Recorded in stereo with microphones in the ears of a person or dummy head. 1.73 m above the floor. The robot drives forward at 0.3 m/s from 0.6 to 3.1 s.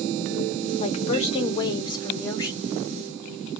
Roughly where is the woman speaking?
Left.